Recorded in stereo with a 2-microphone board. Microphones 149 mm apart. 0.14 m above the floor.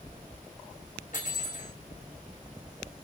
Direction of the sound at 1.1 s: 60° left (ahead or behind).